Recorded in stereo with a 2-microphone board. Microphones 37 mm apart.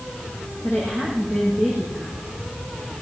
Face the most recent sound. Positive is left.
turn(degrees=-55)  # may be behind; listen again after turning